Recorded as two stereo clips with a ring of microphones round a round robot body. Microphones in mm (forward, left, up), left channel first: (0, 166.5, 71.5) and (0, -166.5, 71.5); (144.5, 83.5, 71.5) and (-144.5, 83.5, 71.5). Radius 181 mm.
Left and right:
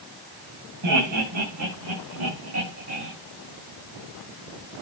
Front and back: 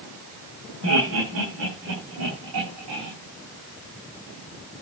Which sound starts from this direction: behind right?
Laughter, at 0.8 s.